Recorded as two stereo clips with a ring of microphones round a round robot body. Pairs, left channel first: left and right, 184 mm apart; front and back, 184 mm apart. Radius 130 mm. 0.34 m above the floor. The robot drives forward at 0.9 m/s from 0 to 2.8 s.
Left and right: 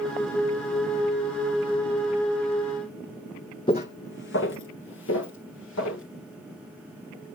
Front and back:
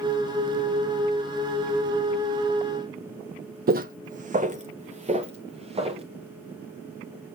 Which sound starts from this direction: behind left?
Footsteps, at 3.7 s.